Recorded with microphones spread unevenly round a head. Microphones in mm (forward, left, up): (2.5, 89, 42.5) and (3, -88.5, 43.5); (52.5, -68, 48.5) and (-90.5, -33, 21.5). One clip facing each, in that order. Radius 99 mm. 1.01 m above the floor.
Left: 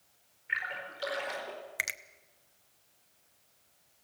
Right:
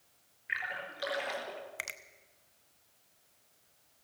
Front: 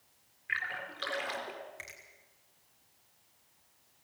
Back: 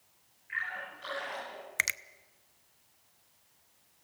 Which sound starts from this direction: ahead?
A splash, at 0.5 s.